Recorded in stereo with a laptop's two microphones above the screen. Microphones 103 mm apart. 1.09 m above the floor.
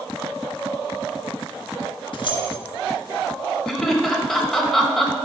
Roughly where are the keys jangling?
Left.